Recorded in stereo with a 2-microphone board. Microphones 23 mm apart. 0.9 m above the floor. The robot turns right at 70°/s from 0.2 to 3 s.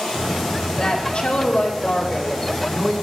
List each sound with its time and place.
0.8 s a woman speaking: 35° left, 2.5 m; by 2.9 s 175° right, 2.5 m